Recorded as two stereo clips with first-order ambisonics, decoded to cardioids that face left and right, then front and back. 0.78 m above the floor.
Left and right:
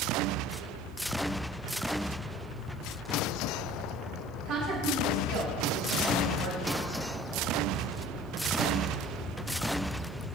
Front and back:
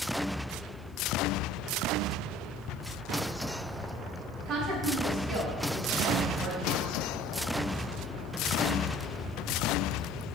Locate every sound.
4.5 s a woman speaking: 135° right, 4.5 m